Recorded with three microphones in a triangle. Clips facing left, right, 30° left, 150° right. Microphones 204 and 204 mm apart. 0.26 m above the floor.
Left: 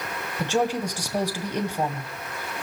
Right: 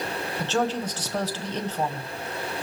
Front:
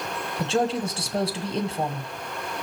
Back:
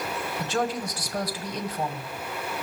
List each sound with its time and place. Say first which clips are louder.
0.4 s a woman speaking: left 2 dB, front 5 dB; 30° left, 1.4 m